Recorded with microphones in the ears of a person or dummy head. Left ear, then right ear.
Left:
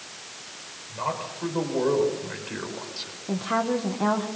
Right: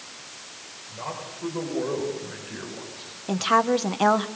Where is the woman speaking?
65° right (ahead or behind), 1.0 m.